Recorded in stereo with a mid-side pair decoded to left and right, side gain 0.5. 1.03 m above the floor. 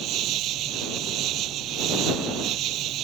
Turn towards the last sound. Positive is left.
turn(degrees=-70)